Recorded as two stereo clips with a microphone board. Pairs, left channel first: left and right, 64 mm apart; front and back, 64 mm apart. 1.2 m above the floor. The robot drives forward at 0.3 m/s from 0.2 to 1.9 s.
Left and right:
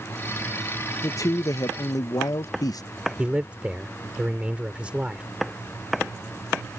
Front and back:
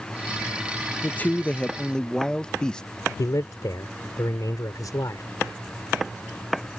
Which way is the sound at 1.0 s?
60° left.